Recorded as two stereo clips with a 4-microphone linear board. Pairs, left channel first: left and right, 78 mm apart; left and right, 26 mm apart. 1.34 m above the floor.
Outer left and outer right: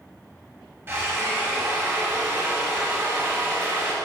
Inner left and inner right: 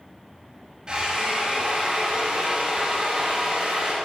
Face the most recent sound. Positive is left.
turn(degrees=-30)  # may be behind; listen again after turning